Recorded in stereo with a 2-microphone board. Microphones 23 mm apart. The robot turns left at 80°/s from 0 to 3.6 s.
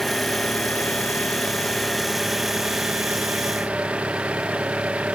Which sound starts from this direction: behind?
An engine running, at 0.0 s.